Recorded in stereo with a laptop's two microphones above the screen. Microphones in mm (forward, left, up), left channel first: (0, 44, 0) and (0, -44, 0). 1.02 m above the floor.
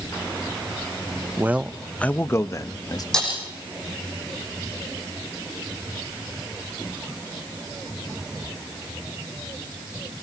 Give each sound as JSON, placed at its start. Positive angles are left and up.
{"t": 1.4, "sound": "a man speaking", "side_deg": -25, "distance_m": 0.8}
{"t": 3.1, "sound": "breaking glass", "side_deg": 5, "distance_m": 7.5}